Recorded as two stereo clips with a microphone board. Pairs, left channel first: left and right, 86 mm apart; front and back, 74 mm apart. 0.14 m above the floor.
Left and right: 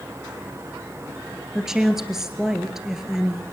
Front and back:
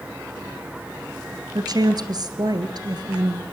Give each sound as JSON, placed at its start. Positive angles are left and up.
{"t": 1.6, "sound": "a woman speaking", "azimuth_deg": -175, "distance_m": 2.0}